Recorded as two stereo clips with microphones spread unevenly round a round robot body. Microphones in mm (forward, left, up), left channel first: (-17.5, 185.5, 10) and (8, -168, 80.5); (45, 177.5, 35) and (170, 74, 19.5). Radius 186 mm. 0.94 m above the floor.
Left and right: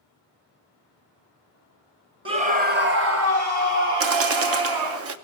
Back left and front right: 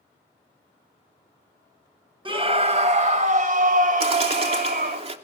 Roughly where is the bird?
Ahead right.